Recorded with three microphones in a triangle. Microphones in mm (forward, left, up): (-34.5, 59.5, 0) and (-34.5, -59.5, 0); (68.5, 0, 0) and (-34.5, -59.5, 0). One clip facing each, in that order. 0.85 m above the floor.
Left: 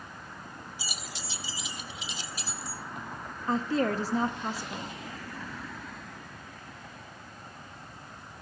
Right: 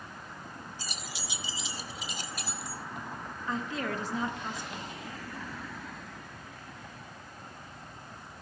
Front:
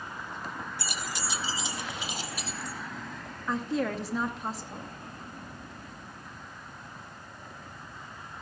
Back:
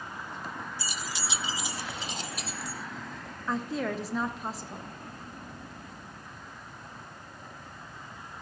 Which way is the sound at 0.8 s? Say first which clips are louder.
Even, front 1 dB; 15° left.